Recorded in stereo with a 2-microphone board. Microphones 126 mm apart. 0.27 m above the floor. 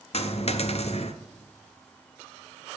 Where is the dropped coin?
55° left (ahead or behind), 0.6 m.